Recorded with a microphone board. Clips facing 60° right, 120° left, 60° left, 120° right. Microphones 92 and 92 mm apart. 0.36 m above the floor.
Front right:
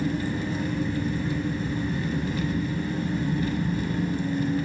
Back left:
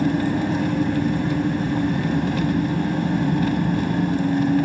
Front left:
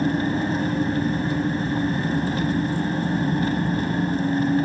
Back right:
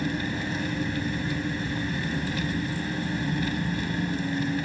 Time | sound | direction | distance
0.0 | an engine running | 110° left | 0.9 m